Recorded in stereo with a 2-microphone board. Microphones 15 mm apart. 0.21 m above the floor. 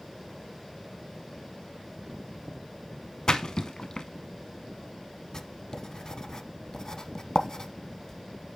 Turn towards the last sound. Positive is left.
turn(degrees=40)  # may be behind; listen again after turning